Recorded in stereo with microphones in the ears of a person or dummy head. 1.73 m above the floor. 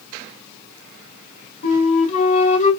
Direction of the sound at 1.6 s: 35° left (ahead or behind).